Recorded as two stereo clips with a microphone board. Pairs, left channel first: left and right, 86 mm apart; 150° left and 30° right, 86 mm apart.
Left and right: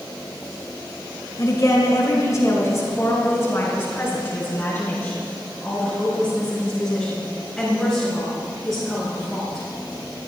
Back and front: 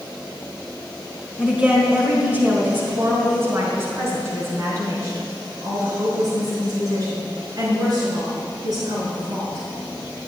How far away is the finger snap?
I don't hear a finger snap.